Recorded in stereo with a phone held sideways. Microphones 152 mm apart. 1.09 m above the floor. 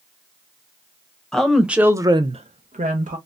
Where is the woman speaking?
5° left (ahead or behind), 0.8 m; by 3.2 s 55° right (ahead or behind), 0.7 m.